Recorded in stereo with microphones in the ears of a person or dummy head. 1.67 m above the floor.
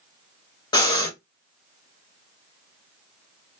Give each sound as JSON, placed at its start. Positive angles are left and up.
{"t": 0.7, "sound": "breathing", "side_deg": 20, "distance_m": 1.1}